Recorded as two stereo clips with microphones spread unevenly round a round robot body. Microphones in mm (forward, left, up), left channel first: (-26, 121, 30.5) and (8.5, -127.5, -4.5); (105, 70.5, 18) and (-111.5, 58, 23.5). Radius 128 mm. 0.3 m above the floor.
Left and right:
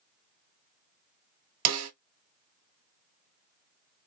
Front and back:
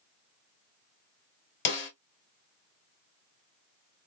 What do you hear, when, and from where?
1.6 s a snare drum: 50° right, 0.9 m